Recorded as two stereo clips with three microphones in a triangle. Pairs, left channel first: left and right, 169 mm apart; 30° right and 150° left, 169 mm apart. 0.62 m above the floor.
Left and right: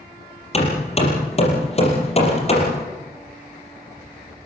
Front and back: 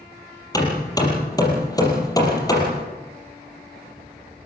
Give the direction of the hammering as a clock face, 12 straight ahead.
11 o'clock.